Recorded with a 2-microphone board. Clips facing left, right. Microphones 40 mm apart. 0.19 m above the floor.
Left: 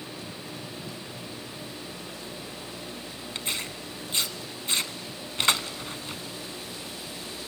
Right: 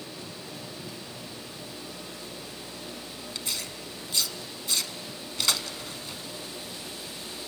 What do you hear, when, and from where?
3.4 s tearing paper: 35° left (ahead or behind), 0.6 m